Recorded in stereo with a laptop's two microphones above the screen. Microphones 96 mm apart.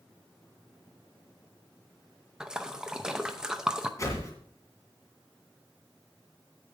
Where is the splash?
10° right (ahead or behind), 0.6 m.